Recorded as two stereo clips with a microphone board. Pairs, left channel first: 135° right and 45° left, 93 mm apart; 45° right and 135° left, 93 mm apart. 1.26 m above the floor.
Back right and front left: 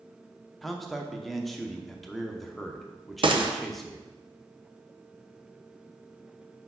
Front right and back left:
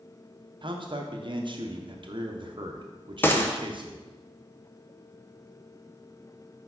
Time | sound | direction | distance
0.6 | a man speaking | 135° left | 0.8 m
3.2 | a gunshot | 20° left | 0.7 m